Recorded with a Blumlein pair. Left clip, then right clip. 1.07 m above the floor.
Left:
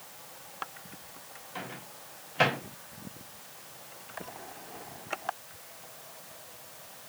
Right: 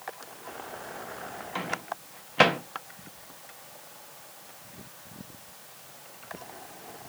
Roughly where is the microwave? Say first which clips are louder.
Right 8 dB; ahead right.